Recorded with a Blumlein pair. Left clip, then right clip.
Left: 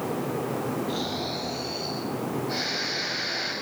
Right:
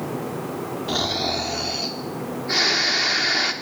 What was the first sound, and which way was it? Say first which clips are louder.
Snoring: right 7 dB; 35° right.